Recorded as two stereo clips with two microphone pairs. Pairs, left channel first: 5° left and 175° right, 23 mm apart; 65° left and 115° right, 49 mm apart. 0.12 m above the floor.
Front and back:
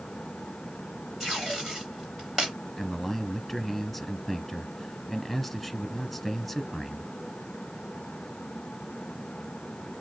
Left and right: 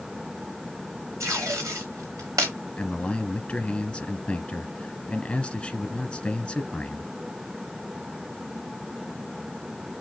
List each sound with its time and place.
1.2 s tape being pulled: 105° right, 3.5 m
2.8 s a man speaking: 80° left, 1.4 m